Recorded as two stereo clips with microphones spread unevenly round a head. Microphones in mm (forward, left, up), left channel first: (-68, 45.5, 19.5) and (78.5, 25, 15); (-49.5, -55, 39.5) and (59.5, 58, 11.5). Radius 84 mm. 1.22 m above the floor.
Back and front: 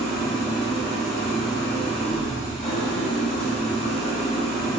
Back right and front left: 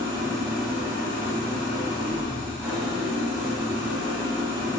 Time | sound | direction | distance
0.0 | an engine running | 125° left | 3.5 m